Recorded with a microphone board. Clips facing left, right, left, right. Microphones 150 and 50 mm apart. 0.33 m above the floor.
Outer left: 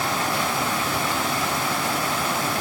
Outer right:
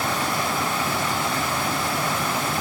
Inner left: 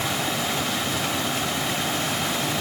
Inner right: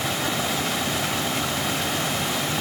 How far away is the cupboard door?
I don't hear a cupboard door.